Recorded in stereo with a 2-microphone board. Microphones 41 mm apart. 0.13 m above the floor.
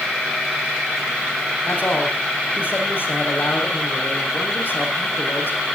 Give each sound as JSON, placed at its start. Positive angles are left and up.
{"t": 1.6, "sound": "a man speaking", "side_deg": 55, "distance_m": 5.5}